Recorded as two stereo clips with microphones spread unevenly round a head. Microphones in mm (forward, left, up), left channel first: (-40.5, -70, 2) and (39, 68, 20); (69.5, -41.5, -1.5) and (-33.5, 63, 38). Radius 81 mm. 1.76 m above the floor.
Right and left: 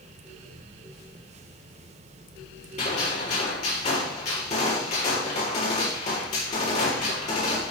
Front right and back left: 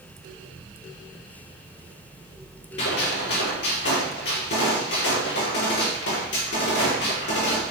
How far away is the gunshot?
About 6.5 m.